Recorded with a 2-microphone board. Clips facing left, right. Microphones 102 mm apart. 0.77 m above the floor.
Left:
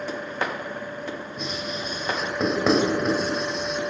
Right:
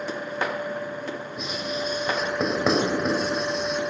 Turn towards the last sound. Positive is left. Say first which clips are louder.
# right 3 dB
turn(degrees=-5)  # may be behind; listen again after turning